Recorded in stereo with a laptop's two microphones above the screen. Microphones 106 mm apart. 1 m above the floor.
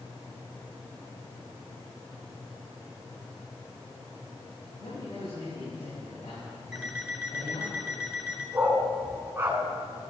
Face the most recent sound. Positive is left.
turn(degrees=-20)  # may be behind; listen again after turning